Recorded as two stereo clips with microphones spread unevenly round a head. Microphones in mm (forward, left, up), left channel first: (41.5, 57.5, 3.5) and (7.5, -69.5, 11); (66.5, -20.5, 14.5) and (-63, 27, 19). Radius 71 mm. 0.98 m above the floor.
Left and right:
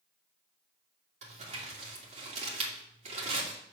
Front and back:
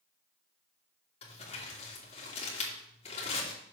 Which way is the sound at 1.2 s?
65° right.